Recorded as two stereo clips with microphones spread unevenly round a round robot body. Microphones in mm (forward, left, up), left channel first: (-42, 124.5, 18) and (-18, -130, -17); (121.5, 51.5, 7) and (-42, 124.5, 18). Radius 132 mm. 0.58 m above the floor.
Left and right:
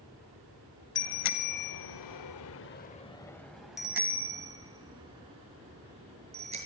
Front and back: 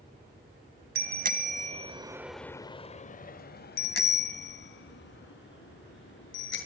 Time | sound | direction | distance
0.9 | a bicycle bell | 125° left | 2.5 m